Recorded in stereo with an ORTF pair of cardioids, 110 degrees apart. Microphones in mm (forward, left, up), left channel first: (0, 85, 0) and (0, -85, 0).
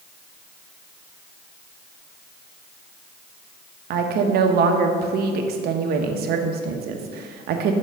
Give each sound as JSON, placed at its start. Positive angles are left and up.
{"t": 3.9, "sound": "a woman speaking", "azimuth_deg": -70, "distance_m": 0.9}